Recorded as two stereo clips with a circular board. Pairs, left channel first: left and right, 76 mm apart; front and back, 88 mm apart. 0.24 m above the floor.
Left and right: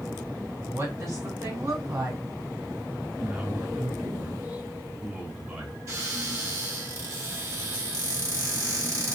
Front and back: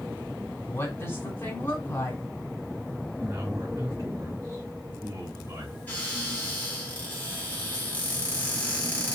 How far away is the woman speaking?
About 2.5 m.